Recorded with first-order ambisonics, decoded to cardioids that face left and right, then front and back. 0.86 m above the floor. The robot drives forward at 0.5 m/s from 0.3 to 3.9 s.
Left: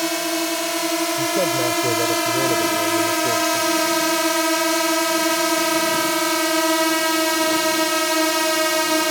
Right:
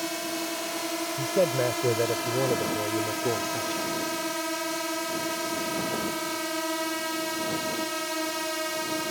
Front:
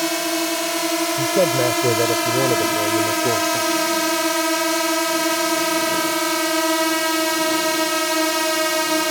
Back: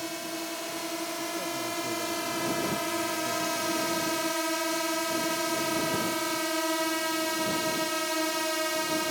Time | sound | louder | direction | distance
0.0 | a drone | left 9 dB, front 13 dB | 35° left | ?
1.2 | a man speaking | left 1 dB, front 15 dB | straight ahead | ?